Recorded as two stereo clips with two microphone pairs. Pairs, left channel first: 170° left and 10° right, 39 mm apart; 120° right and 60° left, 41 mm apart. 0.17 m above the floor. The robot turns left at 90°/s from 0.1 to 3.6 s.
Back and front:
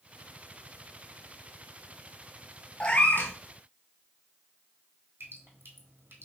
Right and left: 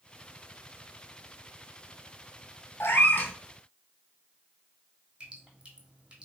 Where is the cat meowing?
125° right, 0.7 m; by 3.3 s 170° right, 0.7 m.